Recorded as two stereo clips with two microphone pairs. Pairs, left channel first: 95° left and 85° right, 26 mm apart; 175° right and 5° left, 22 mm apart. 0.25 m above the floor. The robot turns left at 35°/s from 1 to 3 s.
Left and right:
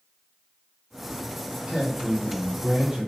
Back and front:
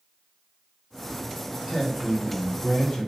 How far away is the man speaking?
About 1.4 m.